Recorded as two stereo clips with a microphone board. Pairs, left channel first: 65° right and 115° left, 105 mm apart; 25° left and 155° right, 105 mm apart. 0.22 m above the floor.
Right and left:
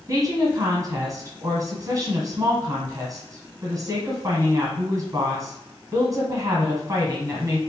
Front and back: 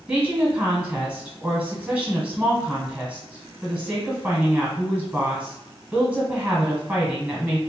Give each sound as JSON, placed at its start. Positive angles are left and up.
{"t": 0.1, "sound": "a woman speaking", "azimuth_deg": 130, "distance_m": 1.5}